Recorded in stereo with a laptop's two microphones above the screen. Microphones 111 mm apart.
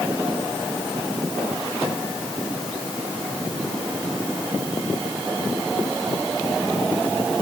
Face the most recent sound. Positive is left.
No sound to turn to.